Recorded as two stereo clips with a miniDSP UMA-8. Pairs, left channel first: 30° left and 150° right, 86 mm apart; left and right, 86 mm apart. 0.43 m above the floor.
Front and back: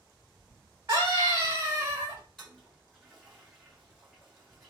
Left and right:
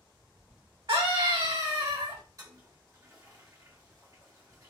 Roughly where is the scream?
Right.